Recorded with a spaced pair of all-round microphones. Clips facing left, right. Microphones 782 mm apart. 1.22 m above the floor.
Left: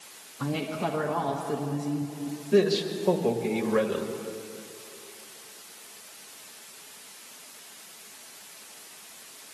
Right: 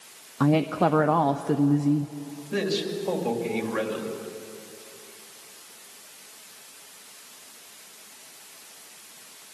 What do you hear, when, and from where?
0.4 s a woman speaking: 80° right, 0.7 m
2.5 s a man speaking: 70° left (ahead or behind), 2 m